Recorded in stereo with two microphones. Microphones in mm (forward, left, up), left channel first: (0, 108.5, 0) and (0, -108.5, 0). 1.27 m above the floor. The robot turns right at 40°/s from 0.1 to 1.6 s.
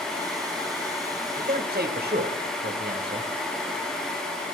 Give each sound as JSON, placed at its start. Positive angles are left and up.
{"t": 1.4, "sound": "a man speaking", "side_deg": -35, "distance_m": 0.9}